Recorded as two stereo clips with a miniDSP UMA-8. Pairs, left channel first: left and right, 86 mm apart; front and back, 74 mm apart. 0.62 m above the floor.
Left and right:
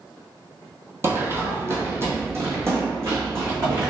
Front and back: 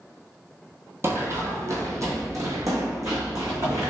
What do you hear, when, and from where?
1.0 s running footsteps: 140° right, 0.9 m; by 3.9 s 150° right, 2 m